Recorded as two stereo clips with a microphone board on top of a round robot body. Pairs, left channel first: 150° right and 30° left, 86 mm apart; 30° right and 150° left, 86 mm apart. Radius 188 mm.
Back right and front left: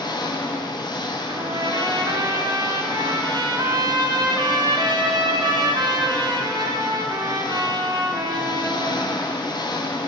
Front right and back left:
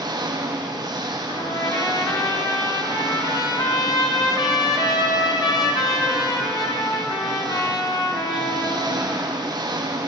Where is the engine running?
Straight behind, 1.3 m.